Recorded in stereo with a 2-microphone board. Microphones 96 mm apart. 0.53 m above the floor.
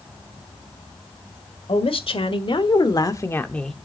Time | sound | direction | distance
1.7 | a woman speaking | 70° left (ahead or behind) | 1.9 m